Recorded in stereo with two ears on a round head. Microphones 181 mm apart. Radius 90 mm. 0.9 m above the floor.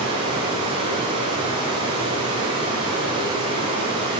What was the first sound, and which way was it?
Running water, 25° right (ahead or behind).